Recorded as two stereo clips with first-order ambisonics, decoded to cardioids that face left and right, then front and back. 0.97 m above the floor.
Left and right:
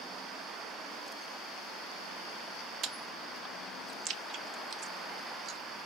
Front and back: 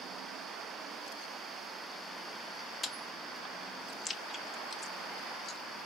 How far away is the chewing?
About 0.5 m.